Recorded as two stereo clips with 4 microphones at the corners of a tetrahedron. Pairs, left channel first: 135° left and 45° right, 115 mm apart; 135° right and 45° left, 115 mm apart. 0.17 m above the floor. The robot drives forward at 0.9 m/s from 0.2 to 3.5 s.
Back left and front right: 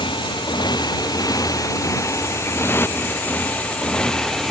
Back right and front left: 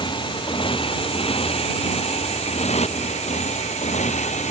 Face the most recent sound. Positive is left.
turn(degrees=-135)